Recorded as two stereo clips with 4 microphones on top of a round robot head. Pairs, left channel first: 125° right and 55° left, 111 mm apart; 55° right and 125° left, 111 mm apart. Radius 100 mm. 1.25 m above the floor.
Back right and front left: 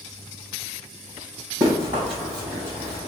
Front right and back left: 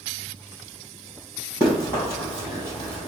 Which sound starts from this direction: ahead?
Running footsteps, at 1.6 s.